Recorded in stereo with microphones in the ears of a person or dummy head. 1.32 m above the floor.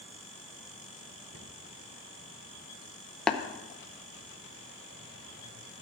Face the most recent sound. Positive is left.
turn(degrees=5)  # may be behind; listen again after turning